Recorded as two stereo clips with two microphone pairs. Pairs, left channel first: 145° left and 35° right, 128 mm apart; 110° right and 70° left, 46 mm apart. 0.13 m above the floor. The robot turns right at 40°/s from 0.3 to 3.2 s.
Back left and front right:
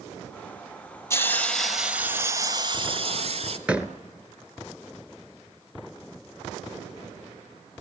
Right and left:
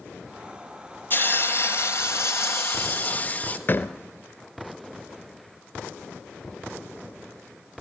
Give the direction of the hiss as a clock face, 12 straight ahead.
5 o'clock.